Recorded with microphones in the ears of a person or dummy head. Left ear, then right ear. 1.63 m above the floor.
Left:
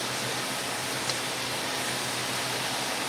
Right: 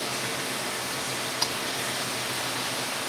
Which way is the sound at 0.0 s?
Centre (ahead or behind).